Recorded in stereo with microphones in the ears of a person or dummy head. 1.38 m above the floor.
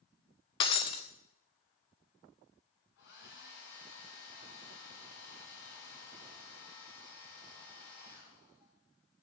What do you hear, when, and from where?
0.6 s breaking glass: 30° left (ahead or behind), 0.7 m
3.0 s a hair dryer: 60° left (ahead or behind), 2 m